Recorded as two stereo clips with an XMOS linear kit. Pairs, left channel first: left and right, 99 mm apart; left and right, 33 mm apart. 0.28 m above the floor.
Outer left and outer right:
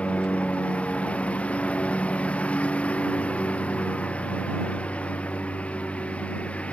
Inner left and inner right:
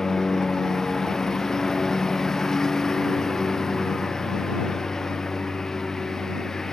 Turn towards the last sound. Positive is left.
turn(degrees=15)  # may be behind; listen again after turning